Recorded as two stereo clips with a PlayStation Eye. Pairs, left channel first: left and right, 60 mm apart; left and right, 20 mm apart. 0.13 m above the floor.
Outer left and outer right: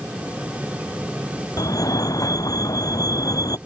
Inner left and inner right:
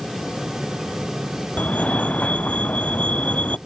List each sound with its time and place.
1.6 s a fire alarm: 80° left